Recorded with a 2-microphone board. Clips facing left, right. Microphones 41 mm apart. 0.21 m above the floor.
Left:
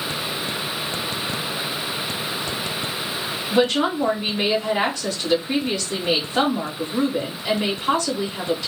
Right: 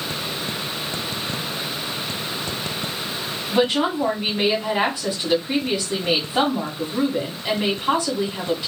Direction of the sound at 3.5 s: 20° right (ahead or behind).